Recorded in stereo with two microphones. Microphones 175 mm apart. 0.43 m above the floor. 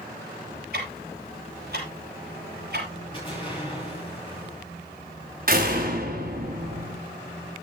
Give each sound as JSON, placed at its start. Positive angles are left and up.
{"t": 0.7, "sound": "ticking", "side_deg": -60, "distance_m": 6.5}
{"t": 3.1, "sound": "an explosion", "side_deg": 25, "distance_m": 8.5}
{"t": 5.5, "sound": "a door slam", "side_deg": -55, "distance_m": 3.5}